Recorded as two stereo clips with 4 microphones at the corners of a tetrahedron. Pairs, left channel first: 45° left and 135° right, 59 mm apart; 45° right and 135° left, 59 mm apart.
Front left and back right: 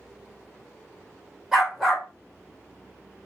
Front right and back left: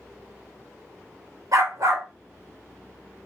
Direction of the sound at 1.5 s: 135° left.